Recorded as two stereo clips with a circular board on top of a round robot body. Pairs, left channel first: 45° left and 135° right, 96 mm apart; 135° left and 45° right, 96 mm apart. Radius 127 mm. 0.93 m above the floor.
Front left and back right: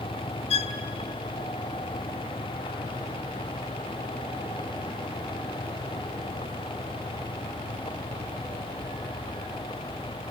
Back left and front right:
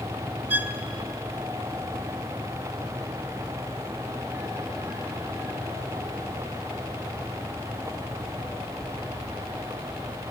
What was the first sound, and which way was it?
A violin, 25° left.